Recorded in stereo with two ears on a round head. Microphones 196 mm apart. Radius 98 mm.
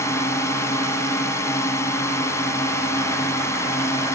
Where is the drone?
15° left (ahead or behind).